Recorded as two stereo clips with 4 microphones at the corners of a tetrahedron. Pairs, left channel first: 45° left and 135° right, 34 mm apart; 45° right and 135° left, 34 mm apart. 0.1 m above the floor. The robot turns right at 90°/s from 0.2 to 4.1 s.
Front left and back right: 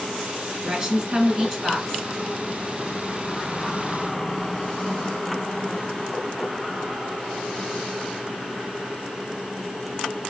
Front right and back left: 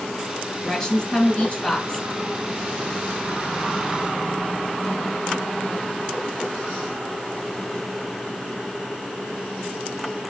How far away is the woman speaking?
About 1.7 m.